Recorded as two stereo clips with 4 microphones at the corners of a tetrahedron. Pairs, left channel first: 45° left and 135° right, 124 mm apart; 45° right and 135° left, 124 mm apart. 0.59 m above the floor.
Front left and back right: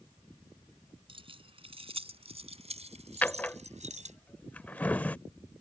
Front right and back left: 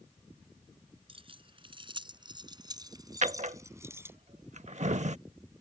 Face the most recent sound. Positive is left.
turn(degrees=120)